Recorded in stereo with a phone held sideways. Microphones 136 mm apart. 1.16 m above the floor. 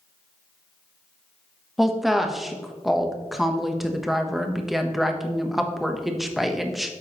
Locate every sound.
1.8 s a woman speaking: centre (ahead or behind), 0.9 m